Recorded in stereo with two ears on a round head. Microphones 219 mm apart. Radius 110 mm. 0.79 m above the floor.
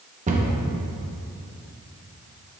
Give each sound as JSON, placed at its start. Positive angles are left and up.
{"t": 0.3, "sound": "a cupboard door", "side_deg": -30, "distance_m": 0.9}